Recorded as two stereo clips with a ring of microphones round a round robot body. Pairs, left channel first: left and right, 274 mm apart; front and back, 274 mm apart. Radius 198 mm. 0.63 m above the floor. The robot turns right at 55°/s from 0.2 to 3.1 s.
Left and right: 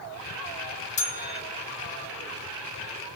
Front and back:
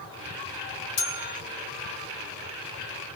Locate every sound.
1.0 s a bell: 30° left, 2 m; by 1.4 s 50° left, 2 m